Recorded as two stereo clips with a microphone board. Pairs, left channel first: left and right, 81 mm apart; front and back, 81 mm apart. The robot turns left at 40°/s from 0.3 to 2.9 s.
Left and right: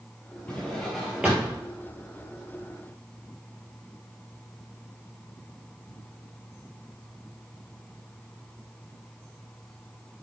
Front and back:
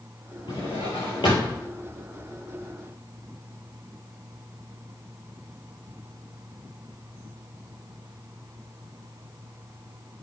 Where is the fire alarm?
I don't hear a fire alarm.